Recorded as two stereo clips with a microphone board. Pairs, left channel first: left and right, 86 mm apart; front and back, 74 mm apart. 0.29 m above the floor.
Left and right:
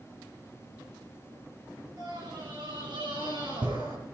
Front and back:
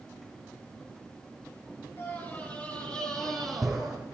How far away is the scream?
About 3.5 m.